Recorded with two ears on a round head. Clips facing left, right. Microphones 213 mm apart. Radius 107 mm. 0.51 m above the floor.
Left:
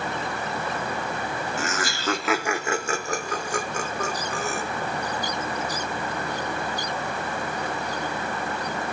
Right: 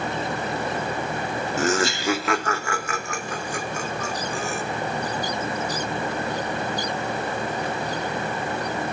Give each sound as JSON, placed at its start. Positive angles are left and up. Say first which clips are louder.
{"t": 1.6, "sound": "laughter", "louder": "right 7 dB", "side_deg": -35, "distance_m": 0.9}